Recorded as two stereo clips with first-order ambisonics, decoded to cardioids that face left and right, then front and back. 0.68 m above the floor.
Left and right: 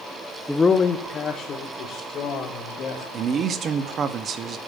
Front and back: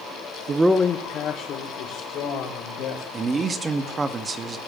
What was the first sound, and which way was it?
A man speaking, 175° right.